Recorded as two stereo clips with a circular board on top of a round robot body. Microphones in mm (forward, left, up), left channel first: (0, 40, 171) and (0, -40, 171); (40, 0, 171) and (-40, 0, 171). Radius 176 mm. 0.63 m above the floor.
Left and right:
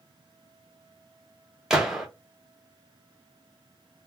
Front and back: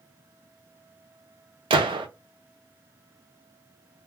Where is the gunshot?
175° right, 0.6 m.